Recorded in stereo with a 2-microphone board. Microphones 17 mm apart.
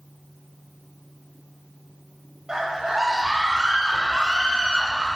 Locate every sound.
2.5 s a scream: 35° right (ahead or behind), 1.1 m; by 5.1 s 65° right (ahead or behind), 3 m